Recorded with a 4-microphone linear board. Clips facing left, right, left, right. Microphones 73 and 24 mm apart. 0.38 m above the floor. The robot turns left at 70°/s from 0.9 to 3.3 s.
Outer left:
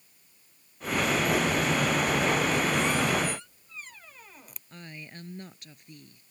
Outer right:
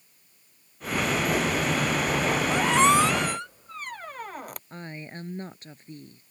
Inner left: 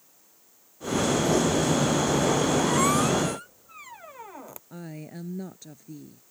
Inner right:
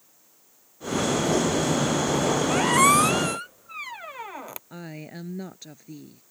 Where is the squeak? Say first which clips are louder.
Outer right 6 dB, inner right 4 dB; 65° right (ahead or behind); by 4.6 s 60° right (ahead or behind).